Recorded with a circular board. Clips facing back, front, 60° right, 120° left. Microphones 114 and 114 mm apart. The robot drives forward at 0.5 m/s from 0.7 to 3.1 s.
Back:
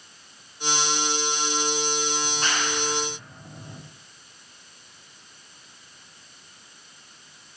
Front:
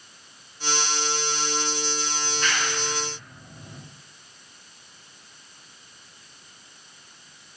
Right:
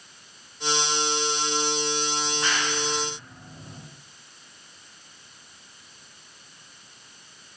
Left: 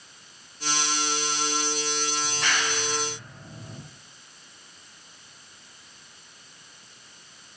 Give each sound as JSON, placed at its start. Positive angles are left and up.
{"t": 2.2, "sound": "a clap", "azimuth_deg": 125, "distance_m": 9.5}